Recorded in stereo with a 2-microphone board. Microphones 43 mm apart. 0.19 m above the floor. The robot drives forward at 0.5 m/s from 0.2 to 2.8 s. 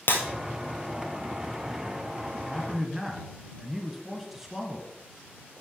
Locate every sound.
0.1 s breaking glass: 60° left (ahead or behind), 1.4 m
2.3 s a man speaking: 5° right (ahead or behind), 1.2 m